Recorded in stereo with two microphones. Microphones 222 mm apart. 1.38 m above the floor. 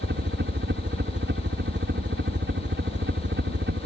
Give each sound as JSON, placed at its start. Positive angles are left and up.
{"t": 0.0, "sound": "a helicopter", "side_deg": -60}